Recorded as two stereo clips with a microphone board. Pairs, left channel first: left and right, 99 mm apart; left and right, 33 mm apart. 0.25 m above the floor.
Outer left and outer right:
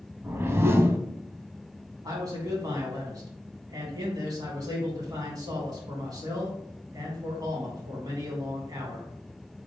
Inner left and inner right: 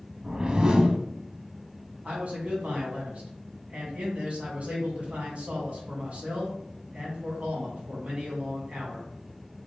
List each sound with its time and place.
0.2 s a whoosh: 25° right (ahead or behind), 0.5 m
2.0 s a man speaking: 40° right (ahead or behind), 1.8 m